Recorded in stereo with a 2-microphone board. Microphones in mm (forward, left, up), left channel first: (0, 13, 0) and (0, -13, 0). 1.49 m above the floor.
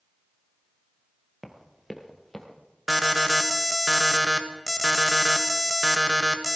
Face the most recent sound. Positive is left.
turn(degrees=0)  # may be behind; listen again after turning